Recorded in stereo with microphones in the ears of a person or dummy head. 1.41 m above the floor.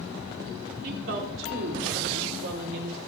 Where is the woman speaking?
65° right (ahead or behind), 4.5 m; by 3.0 s 85° right, 5.5 m.